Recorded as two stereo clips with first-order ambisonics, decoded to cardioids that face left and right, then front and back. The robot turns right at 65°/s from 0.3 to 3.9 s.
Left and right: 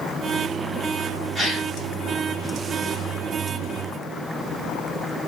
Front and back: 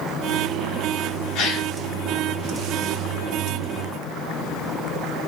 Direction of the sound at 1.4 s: 5° right.